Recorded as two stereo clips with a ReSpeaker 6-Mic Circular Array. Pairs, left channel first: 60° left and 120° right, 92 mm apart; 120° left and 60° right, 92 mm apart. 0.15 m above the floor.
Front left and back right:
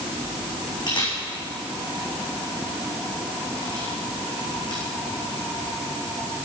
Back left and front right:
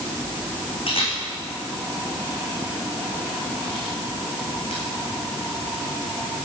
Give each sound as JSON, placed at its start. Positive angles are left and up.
{"t": 0.9, "sound": "a camera shutter", "azimuth_deg": 100, "distance_m": 5.0}